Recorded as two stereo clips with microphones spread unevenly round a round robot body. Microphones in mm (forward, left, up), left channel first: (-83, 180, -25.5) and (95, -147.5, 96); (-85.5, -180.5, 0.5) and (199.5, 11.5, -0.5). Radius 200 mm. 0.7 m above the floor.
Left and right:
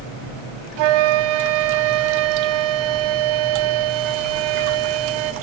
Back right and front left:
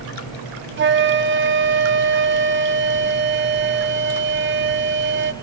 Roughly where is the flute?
Ahead right.